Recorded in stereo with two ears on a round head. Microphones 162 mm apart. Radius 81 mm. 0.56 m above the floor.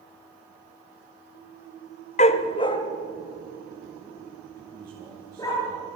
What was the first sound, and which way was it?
A dog barking, 40° left (ahead or behind).